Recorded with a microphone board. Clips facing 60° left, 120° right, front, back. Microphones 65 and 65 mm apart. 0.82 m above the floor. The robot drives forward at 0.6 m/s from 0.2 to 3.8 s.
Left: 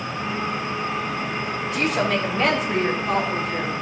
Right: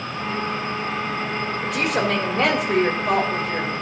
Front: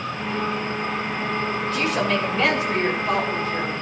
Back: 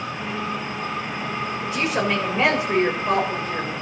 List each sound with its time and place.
1.6 s a woman speaking: 100° right, 3.5 m; by 3.7 s 120° right, 4 m